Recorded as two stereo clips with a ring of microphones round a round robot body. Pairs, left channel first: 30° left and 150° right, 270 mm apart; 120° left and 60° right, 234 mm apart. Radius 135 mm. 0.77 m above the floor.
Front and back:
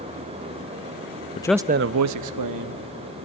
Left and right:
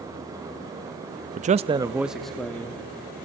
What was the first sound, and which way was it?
A man speaking, 25° right.